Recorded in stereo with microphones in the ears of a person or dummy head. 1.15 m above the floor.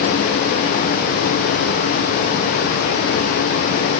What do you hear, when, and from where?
Only background noise.